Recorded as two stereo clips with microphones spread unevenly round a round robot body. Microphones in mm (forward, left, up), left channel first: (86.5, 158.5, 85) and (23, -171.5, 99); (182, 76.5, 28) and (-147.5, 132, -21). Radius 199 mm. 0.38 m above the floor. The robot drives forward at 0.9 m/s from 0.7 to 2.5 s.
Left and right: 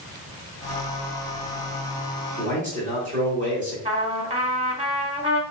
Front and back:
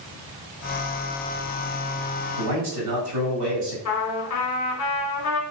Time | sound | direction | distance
2.4 | a man speaking | 165° right | 1.3 m
3.9 | a trumpet | 35° right | 1.0 m